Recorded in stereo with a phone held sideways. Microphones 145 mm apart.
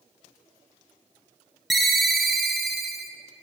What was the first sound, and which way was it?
A ringtone, centre (ahead or behind).